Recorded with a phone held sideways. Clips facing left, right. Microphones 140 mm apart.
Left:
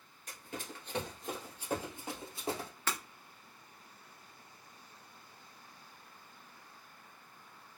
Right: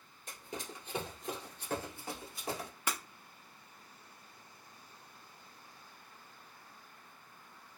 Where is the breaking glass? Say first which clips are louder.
Even; 15° right (ahead or behind), 0.8 m.